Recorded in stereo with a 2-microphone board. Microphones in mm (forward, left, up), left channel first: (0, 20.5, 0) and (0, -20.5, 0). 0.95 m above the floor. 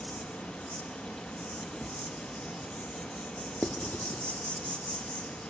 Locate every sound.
0.0 s an insect: 40° left (ahead or behind), 1.1 m
3.6 s writing: 40° left (ahead or behind), 0.7 m